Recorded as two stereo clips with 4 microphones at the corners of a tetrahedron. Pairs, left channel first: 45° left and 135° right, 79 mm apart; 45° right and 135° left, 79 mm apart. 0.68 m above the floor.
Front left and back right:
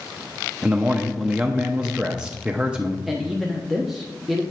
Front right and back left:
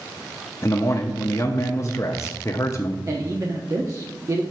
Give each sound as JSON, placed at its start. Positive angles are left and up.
{"t": 0.6, "sound": "a man speaking", "azimuth_deg": -60, "distance_m": 0.6}
{"t": 3.1, "sound": "a man speaking", "azimuth_deg": 135, "distance_m": 0.9}